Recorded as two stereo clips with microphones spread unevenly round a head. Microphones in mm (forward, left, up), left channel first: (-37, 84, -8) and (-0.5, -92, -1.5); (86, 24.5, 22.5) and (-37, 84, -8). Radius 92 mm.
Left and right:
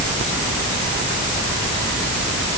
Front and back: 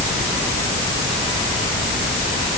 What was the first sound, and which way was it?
Only background noise.